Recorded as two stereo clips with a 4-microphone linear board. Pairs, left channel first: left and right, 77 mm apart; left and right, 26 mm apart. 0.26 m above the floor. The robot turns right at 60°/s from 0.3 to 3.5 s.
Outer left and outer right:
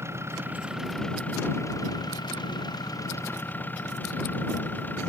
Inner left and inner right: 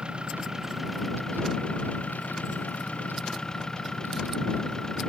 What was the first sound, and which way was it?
An engine running, 40° right.